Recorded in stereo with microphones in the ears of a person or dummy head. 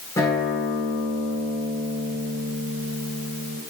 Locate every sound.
0.2 s a guitar: 15° left (ahead or behind), 10 m